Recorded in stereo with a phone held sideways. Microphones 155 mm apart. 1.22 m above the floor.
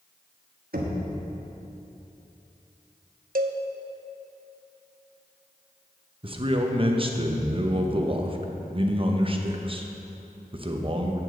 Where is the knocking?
75° right (ahead or behind), 1.3 m.